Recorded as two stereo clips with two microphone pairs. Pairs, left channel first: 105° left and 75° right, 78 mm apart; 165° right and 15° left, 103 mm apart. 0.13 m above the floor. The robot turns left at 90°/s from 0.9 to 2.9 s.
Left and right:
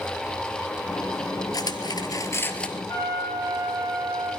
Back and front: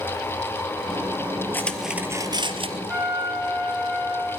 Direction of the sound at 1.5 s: 125° left.